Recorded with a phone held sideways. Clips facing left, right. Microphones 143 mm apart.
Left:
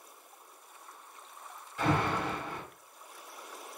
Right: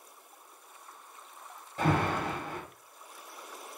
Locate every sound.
1.8 s an alarm: 45° right (ahead or behind), 1.6 m